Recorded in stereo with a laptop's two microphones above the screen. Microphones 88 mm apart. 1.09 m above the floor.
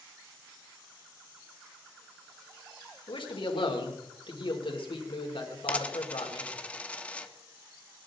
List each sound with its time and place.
3.1 s a man speaking: 65° left (ahead or behind), 3 m
5.7 s a dropped coin: 15° left (ahead or behind), 0.9 m